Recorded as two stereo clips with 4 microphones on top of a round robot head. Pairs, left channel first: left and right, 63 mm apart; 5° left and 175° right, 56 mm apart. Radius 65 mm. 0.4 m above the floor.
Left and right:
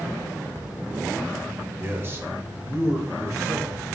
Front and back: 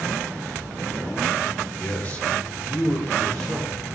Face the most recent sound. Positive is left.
turn(degrees=-70)